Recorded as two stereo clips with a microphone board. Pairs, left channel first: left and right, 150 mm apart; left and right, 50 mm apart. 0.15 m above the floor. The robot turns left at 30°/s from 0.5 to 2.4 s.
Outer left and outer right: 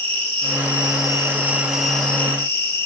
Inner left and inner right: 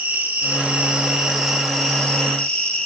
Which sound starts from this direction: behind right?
An insect, at 0.0 s.